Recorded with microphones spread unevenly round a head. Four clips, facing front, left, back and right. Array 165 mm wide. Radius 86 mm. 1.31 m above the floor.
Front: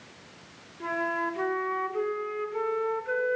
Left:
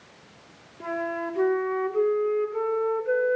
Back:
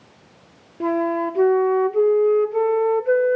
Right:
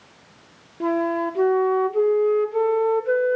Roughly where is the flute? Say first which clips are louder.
Right 8 dB, back 9 dB; behind right.